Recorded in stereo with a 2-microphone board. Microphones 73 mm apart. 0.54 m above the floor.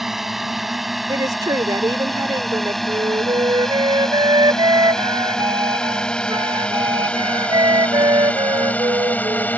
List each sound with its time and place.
0.0 s a drone: 5° right (ahead or behind); by 9.6 s 20° left (ahead or behind)
1.1 s a woman speaking: 55° right (ahead or behind)
2.9 s a flute: 65° right (ahead or behind)